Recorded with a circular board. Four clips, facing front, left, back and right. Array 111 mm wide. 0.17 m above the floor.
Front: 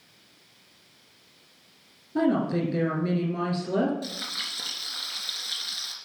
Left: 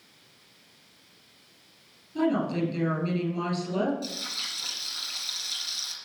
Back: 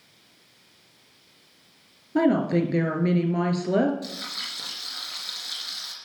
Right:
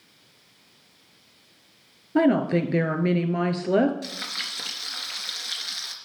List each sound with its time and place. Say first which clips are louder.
2.1 s a woman speaking: right 6 dB, back 3 dB; 115° right, 2.5 m
4.0 s frying: right 2 dB, even; 85° right, 3 m